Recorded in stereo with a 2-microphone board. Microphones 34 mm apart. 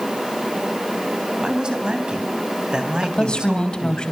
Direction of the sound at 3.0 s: 25° left (ahead or behind).